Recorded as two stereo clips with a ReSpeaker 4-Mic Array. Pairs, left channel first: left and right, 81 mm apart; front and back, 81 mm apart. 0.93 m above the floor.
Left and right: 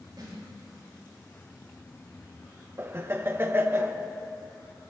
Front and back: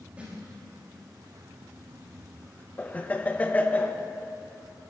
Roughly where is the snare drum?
Right.